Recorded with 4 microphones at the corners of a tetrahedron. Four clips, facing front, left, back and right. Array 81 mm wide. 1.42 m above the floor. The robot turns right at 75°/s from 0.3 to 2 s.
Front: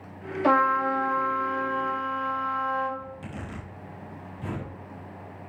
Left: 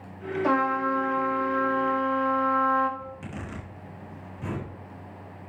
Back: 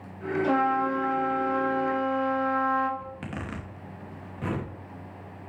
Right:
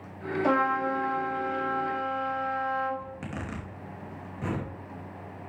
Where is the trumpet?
5° left, 5 m; by 2.9 s 120° left, 5 m.